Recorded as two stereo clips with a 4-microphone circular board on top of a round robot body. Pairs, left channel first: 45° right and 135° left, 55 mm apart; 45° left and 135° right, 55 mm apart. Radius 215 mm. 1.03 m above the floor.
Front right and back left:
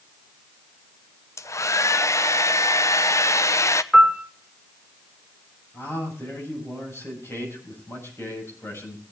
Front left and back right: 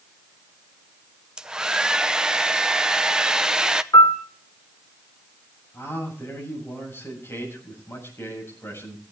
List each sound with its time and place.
1.4 s a hair dryer: 60° right, 1.0 m
3.9 s a piano: 40° left, 2 m
5.7 s a man speaking: straight ahead, 7.5 m